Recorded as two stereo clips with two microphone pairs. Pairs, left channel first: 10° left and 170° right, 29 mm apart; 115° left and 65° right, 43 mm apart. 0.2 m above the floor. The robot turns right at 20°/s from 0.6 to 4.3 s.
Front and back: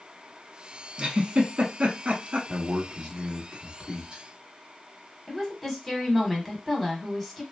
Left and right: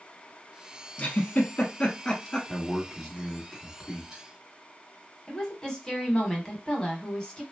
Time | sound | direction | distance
1.0 | a giggle | 150° left | 0.8 m
2.5 | a man speaking | 175° right | 1.2 m
5.3 | a woman speaking | 90° left | 1.0 m